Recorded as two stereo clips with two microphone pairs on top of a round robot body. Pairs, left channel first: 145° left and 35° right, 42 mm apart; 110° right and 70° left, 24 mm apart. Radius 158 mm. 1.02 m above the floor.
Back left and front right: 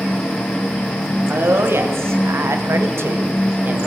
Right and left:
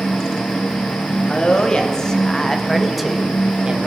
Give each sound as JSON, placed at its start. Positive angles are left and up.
{"t": 1.3, "sound": "a woman speaking", "azimuth_deg": -60, "distance_m": 2.5}